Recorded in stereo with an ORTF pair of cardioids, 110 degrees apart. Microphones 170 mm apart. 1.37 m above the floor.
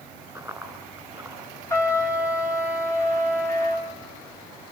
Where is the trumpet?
20° left, 3.5 m.